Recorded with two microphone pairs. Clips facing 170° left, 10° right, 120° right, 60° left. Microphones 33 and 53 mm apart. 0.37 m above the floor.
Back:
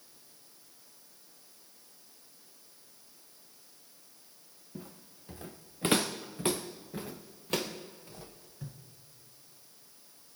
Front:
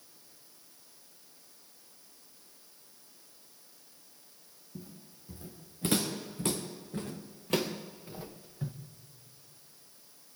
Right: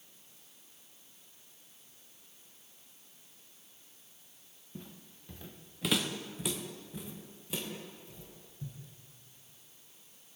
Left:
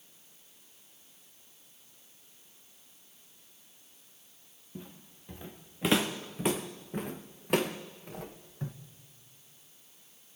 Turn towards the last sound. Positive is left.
turn(degrees=55)